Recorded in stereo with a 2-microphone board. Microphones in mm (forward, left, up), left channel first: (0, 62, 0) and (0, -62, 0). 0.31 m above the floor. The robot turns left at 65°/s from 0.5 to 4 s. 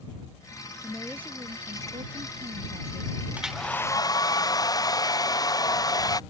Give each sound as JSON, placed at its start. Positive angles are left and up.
{"t": 0.8, "sound": "a woman speaking", "azimuth_deg": 10}
{"t": 3.4, "sound": "a hair dryer", "azimuth_deg": -170}